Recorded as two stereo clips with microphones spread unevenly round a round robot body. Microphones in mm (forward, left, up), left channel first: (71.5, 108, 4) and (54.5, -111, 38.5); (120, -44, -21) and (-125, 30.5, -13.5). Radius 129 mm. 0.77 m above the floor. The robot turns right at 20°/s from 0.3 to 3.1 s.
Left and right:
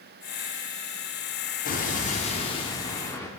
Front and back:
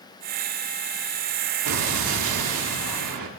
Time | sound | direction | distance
1.6 | an explosion | 135° left | 1.5 m